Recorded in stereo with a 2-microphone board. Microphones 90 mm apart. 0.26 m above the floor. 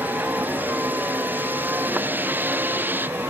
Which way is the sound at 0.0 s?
20° right (ahead or behind).